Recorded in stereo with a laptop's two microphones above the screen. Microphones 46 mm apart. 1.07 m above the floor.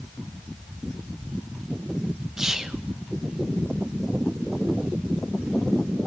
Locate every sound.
2.4 s whispering: 10° right (ahead or behind), 0.6 m